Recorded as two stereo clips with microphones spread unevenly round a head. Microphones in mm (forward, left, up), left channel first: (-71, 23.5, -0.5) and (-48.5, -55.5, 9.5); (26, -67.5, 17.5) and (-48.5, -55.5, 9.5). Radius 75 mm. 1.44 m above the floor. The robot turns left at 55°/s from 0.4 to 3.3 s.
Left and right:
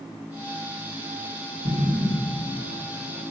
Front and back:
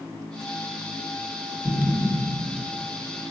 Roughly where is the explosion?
Left.